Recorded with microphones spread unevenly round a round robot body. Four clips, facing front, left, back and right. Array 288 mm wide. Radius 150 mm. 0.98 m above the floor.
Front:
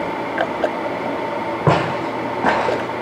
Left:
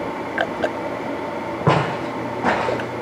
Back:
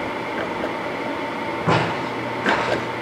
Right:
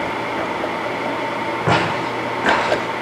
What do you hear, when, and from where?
1.7 s footsteps: 20° left, 4.5 m; by 2.9 s 10° left, 4.5 m